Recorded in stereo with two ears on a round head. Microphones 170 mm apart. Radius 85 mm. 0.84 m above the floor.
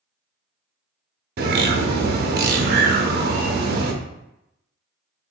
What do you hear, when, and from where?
1.4 s a bird: 50° right (ahead or behind), 0.6 m